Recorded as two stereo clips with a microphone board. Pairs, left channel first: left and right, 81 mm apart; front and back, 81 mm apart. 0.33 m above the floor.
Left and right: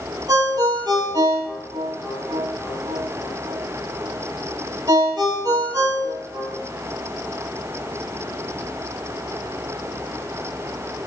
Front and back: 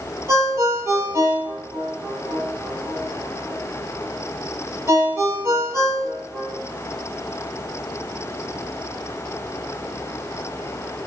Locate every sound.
0.3 s a ringtone: 125° right, 6 m